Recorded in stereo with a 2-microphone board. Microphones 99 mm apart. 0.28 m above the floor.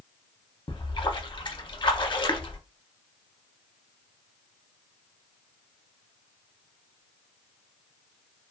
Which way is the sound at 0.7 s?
50° left (ahead or behind).